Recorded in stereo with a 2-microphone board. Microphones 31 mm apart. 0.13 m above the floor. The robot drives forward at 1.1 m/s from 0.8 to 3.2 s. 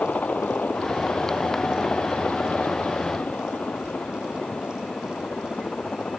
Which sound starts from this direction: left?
A helicopter, at 0.0 s.